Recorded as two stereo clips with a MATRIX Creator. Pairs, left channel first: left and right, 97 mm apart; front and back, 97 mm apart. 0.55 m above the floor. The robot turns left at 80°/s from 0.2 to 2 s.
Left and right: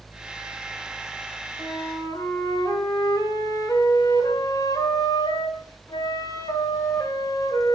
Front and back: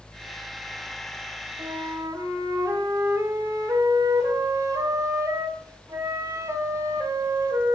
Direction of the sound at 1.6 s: 165° left.